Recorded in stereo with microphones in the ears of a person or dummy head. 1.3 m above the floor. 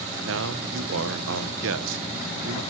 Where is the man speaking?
65° right (ahead or behind), 1.3 m.